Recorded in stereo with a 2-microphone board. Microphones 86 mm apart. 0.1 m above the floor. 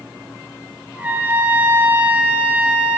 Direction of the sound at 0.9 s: 20° right (ahead or behind).